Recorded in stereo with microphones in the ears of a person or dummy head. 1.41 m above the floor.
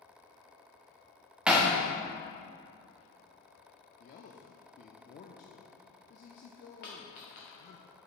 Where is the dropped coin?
35° left (ahead or behind), 1.0 m.